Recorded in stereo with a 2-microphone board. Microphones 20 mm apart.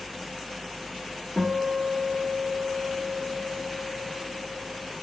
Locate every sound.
1.4 s a guitar: 25° left (ahead or behind), 1.0 m